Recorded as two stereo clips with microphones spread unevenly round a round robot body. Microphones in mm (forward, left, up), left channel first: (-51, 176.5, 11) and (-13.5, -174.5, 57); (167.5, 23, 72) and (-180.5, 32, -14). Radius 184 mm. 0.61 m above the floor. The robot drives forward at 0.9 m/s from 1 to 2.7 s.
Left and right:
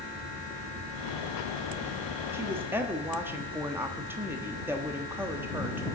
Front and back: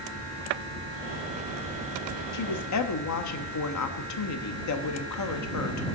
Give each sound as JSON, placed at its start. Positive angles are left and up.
{"t": 2.3, "sound": "a woman speaking", "azimuth_deg": 5, "distance_m": 1.5}